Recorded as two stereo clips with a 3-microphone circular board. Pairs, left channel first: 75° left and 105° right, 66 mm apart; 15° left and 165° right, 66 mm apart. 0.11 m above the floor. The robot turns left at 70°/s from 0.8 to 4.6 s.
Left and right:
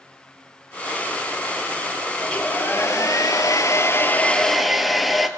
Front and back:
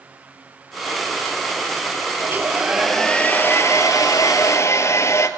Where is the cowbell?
I don't hear a cowbell.